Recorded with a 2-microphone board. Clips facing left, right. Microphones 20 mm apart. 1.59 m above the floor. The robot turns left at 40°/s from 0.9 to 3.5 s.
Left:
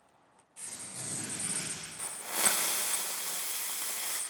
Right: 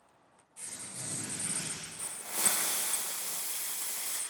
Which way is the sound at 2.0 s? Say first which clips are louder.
Left 3 dB; 135° left.